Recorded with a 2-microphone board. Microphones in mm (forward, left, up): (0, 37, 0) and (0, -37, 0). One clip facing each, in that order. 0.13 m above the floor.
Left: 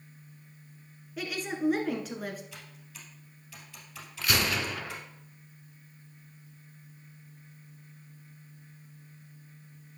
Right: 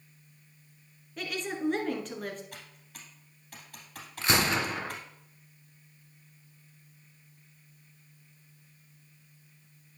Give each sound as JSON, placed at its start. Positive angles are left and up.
{"t": 1.2, "sound": "a woman speaking", "side_deg": 5, "distance_m": 1.4}
{"t": 2.5, "sound": "typing on a keyboard", "side_deg": -50, "distance_m": 2.5}
{"t": 4.2, "sound": "a gunshot", "side_deg": -30, "distance_m": 0.7}